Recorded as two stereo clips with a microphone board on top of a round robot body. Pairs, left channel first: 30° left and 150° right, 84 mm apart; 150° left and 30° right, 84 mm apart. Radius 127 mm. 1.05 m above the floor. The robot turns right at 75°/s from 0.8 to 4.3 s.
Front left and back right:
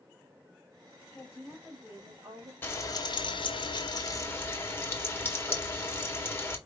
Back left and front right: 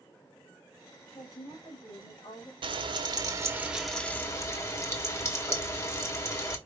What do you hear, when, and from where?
1.1 s a woman speaking: 80° left, 1.9 m; by 2.5 s 170° right, 1.9 m
2.6 s frying: 35° right, 1.4 m; by 6.6 s 95° left, 1.4 m